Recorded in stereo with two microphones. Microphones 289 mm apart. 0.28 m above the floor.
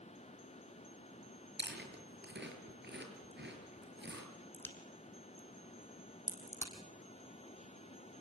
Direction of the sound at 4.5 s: 10° left (ahead or behind).